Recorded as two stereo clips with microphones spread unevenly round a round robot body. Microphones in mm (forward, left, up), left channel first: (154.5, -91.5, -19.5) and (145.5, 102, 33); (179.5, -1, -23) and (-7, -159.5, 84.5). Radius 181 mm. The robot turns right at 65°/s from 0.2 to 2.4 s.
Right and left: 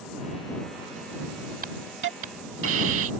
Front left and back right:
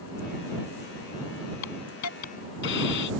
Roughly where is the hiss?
Ahead left.